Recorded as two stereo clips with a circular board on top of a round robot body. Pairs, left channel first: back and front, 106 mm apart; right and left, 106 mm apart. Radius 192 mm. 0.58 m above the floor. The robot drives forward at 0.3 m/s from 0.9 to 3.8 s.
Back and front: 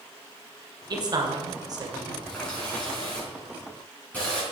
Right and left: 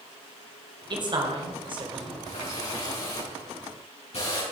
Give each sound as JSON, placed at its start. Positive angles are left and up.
{"t": 0.9, "sound": "a man speaking", "azimuth_deg": 45, "distance_m": 2.5}
{"t": 2.2, "sound": "a running tap", "azimuth_deg": -100, "distance_m": 5.5}